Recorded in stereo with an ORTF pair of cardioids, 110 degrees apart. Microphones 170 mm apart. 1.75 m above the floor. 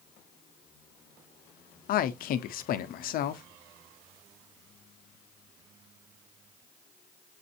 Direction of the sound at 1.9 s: 60° left.